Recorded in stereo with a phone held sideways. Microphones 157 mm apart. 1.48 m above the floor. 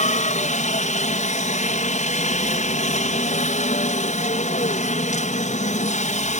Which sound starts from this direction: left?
A helicopter, at 0.0 s.